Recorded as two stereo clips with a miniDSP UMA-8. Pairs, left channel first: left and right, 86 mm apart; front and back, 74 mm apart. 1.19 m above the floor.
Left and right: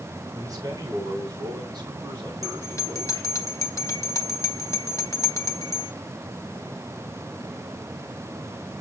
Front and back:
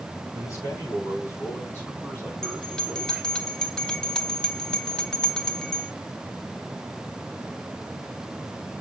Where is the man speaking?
45° right, 5.5 m; by 3.4 s 90° right, 3 m.